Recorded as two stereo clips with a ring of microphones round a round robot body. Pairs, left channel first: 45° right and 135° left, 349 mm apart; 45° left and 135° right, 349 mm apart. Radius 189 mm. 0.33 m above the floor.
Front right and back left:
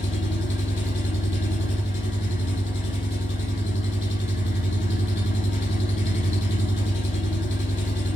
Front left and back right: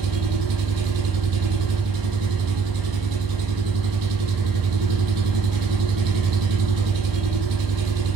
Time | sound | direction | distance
0.0 | an engine running | 105° right | 5 m